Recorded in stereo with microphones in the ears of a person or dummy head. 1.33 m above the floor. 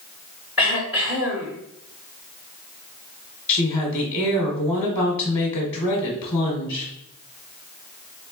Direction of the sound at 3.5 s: 25° left (ahead or behind).